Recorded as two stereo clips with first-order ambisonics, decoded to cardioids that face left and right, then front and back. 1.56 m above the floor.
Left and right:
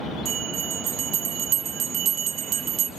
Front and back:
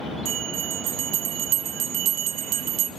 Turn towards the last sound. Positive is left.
turn(degrees=-145)